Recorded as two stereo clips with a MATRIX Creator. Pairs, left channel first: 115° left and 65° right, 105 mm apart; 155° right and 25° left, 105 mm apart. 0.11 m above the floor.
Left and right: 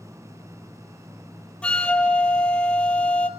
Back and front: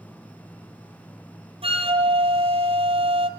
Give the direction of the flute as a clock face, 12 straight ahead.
11 o'clock.